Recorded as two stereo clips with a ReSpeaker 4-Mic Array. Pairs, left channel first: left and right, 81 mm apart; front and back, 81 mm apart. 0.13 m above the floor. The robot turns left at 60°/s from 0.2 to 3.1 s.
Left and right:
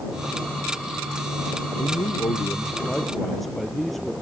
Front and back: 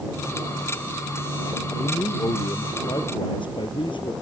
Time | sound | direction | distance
1.8 | a man speaking | 80° left | ?